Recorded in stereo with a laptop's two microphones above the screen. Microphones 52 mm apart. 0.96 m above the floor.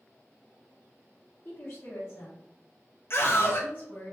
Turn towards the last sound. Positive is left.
turn(degrees=50)  # may be behind; listen again after turning